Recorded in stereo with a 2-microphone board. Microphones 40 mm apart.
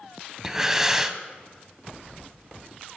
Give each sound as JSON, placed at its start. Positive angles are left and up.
{"t": 0.4, "sound": "breathing", "side_deg": -10, "distance_m": 0.7}